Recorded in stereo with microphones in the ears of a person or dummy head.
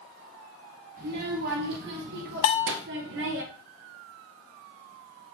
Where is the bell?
50° left (ahead or behind), 1.5 m.